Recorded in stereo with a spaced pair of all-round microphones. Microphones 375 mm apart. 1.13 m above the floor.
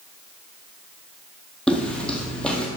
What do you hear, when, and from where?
1.7 s footsteps: 5° left (ahead or behind), 1.4 m